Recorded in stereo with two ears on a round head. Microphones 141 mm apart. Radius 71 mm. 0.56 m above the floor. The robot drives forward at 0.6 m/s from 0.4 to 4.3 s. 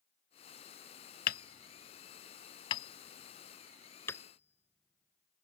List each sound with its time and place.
1.3 s hammering: 60° left (ahead or behind); by 5.5 s 15° left (ahead or behind)